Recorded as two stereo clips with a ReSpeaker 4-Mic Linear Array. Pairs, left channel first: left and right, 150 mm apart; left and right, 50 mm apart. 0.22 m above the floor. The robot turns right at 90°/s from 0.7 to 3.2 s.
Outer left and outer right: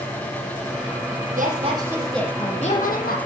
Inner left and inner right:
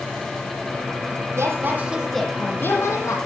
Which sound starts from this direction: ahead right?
A woman speaking, at 1.4 s.